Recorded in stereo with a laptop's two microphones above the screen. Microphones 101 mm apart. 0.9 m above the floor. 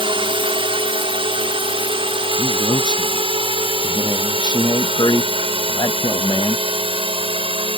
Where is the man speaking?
45° left (ahead or behind).